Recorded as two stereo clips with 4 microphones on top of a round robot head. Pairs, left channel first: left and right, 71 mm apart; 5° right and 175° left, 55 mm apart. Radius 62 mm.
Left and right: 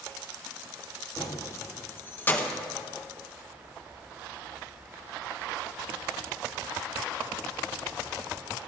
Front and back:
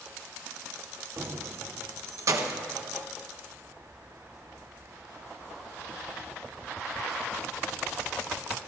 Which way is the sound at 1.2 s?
130° left.